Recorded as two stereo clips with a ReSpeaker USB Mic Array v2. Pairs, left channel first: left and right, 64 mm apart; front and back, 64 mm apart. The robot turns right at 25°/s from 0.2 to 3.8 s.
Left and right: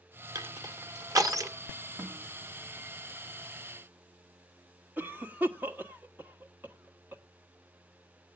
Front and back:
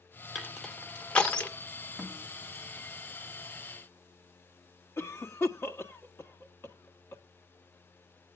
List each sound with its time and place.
0.3 s crushing: 90° right, 1.4 m; by 1.5 s 60° right, 1.4 m
2.0 s a snare drum: 95° right, 3.5 m; by 2.2 s 90° right, 3.5 m
5.0 s a cough: 40° right, 1.5 m